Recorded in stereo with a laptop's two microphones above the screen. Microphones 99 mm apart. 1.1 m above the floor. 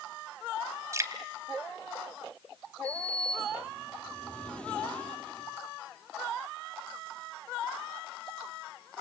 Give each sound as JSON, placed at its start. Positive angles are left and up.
{"t": 0.9, "sound": "dripping", "side_deg": -30, "distance_m": 3.0}
{"t": 2.8, "sound": "a sliding door", "side_deg": 10, "distance_m": 8.5}